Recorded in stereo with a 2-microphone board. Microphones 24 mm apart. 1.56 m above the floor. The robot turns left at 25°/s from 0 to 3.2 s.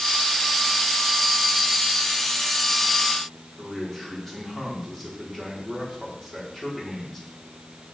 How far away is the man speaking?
About 4.5 m.